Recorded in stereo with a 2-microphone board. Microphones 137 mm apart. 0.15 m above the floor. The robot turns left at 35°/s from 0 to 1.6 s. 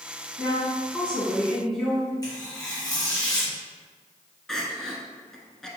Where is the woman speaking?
15° left (ahead or behind), 1.4 m; by 2.1 s centre (ahead or behind), 1.4 m.